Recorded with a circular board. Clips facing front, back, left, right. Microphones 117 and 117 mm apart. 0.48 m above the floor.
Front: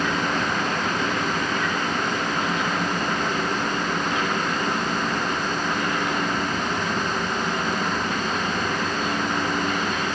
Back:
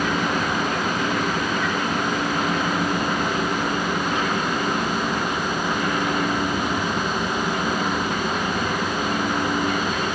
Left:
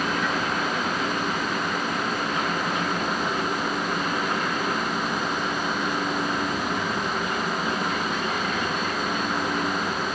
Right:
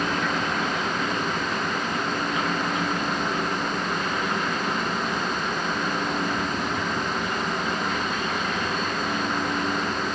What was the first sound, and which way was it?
Only background noise.